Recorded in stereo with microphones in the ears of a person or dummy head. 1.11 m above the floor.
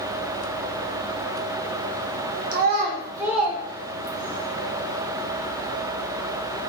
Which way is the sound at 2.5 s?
50° right (ahead or behind).